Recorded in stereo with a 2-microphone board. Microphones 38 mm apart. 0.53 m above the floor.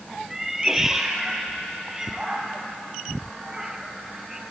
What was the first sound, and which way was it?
A cat meowing, 10° right (ahead or behind).